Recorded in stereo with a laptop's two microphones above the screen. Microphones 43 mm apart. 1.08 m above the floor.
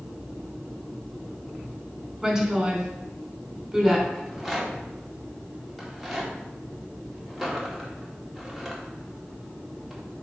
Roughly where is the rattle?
Centre.